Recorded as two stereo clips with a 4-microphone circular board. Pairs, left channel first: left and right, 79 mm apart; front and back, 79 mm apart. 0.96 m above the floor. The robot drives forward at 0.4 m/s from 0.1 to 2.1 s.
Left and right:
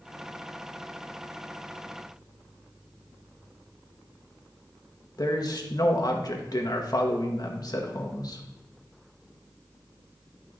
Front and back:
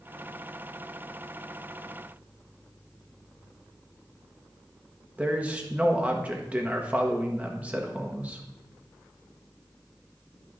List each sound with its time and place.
5.2 s a man speaking: 115° left, 1.1 m